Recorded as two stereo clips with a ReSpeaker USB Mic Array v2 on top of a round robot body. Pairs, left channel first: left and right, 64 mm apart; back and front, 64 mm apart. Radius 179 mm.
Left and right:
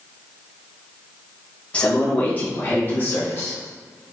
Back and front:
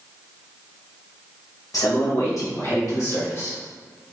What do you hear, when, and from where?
1.7 s a man speaking: 160° left, 2.0 m; by 3.6 s 135° left, 2.5 m